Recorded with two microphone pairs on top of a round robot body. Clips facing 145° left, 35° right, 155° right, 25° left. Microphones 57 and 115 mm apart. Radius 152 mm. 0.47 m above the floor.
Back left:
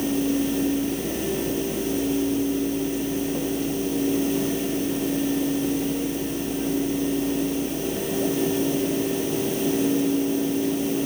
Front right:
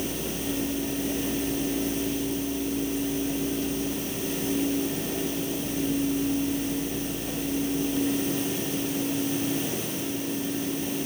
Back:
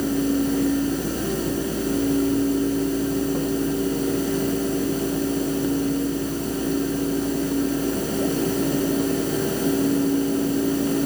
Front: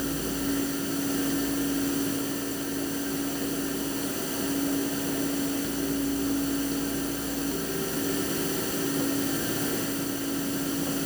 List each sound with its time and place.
Only background noise.